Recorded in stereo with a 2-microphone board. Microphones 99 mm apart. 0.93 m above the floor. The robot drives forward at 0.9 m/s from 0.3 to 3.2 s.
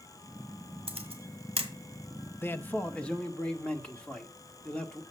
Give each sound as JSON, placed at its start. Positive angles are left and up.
{"t": 0.9, "sound": "a camera shutter", "side_deg": -75, "distance_m": 2.0}
{"t": 2.4, "sound": "a man speaking", "side_deg": 25, "distance_m": 0.6}